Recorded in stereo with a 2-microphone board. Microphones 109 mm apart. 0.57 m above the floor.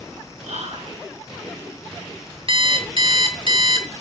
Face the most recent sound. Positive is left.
turn(degrees=-55)  # may be behind; listen again after turning